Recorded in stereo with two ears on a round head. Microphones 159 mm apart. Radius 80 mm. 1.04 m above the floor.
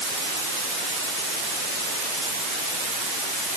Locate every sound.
Only background noise.